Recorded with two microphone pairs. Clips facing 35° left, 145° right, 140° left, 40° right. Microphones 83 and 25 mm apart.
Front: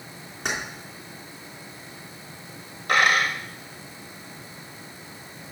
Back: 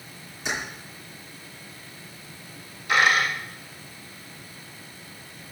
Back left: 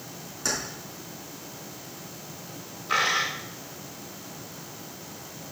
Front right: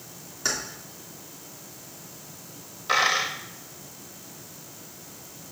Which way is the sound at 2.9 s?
Straight ahead.